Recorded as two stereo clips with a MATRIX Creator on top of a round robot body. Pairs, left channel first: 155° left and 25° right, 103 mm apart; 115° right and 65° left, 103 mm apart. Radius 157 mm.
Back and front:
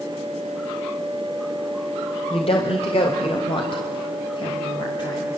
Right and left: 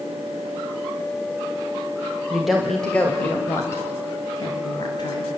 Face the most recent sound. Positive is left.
turn(degrees=-155)